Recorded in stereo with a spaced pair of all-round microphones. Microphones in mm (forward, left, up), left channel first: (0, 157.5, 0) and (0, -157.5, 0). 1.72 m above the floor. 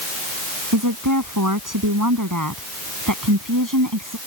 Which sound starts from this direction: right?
A woman speaking, at 0.7 s.